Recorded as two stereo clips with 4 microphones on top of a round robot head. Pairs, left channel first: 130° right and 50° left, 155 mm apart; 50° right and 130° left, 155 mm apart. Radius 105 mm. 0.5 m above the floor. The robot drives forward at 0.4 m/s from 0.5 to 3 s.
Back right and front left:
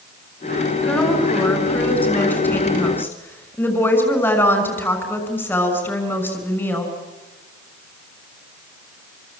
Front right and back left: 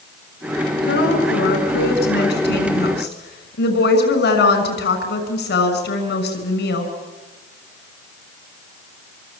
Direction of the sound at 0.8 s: 45° right.